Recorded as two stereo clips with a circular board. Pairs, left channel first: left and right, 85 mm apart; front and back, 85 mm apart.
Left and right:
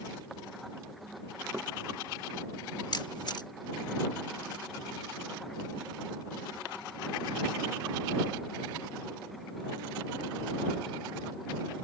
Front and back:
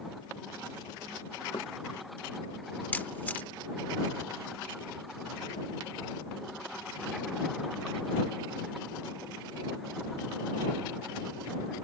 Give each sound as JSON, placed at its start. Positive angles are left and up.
{"t": 1.5, "sound": "knocking", "azimuth_deg": -30}
{"t": 2.9, "sound": "a camera shutter", "azimuth_deg": 70}